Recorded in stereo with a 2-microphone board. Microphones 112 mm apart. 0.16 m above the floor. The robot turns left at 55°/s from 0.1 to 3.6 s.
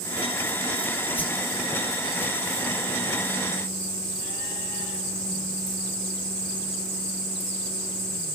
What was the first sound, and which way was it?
A whoosh, 20° left (ahead or behind).